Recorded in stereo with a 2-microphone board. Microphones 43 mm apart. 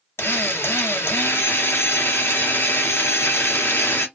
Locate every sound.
0.2 s a drill: 70° left (ahead or behind), 0.7 m